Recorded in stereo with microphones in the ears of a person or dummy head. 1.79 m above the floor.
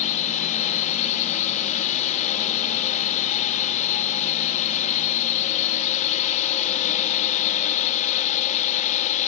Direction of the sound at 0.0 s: 40° left (ahead or behind).